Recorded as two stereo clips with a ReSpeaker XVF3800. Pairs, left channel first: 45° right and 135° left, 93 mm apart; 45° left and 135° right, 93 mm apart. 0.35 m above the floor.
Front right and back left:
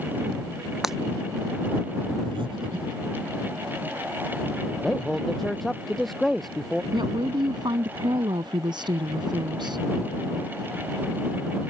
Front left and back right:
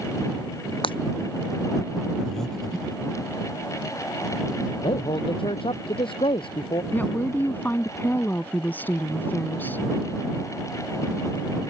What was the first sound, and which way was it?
Breaking glass, 50° left.